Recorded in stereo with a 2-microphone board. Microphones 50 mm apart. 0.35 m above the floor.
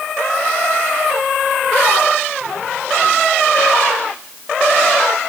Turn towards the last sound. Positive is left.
No sound to turn to.